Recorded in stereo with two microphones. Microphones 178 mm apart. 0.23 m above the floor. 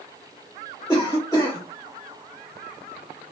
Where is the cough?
20° left (ahead or behind), 1.2 m.